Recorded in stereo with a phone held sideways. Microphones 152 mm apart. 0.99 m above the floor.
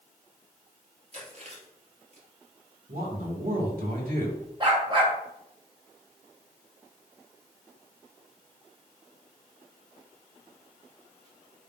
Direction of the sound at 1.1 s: 45° right (ahead or behind).